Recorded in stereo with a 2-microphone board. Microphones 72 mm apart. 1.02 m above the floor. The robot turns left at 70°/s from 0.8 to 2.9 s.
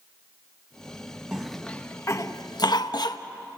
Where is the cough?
10° right (ahead or behind), 0.9 m; by 3.2 s 75° left (ahead or behind), 0.9 m.